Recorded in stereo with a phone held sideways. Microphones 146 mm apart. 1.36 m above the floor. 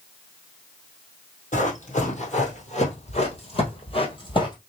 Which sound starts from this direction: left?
Running footsteps, at 1.5 s.